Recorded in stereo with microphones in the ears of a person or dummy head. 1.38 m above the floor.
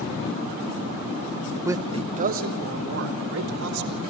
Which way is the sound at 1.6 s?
10° right (ahead or behind).